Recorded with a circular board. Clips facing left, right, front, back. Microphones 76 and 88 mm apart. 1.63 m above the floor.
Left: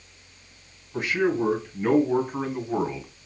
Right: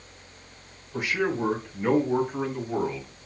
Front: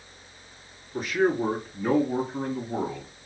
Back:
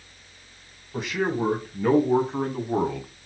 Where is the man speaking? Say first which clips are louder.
Left 3 dB, front 2 dB; 170° right, 1.8 m; by 3.1 s 155° left, 0.8 m.